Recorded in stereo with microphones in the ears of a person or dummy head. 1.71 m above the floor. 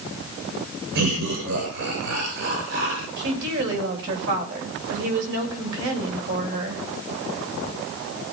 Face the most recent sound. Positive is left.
turn(degrees=-65)  # may be behind; listen again after turning